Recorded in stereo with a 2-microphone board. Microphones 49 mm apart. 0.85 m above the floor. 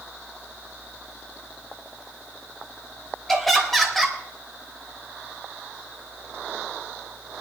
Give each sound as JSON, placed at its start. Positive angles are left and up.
{"t": 3.3, "sound": "laughter", "side_deg": 5, "distance_m": 3.0}